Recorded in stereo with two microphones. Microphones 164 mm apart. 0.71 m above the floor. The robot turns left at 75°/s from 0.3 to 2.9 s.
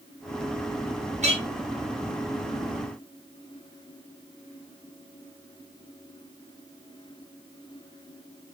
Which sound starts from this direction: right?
A clink, at 1.2 s.